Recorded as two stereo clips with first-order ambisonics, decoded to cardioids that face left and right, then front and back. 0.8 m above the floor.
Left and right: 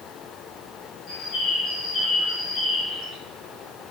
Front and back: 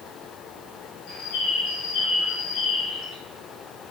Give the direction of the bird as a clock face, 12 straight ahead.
11 o'clock.